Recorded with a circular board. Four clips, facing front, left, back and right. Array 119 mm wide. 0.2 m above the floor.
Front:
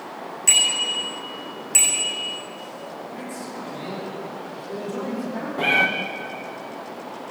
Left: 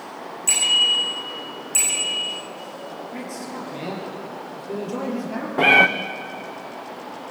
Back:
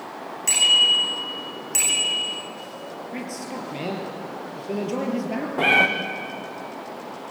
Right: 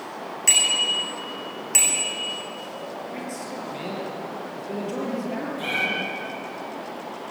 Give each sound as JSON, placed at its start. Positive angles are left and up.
{"t": 0.5, "sound": "a bicycle bell", "azimuth_deg": -80, "distance_m": 9.5}
{"t": 3.1, "sound": "a man speaking", "azimuth_deg": -175, "distance_m": 5.5}
{"t": 5.6, "sound": "a cat meowing", "azimuth_deg": 105, "distance_m": 2.0}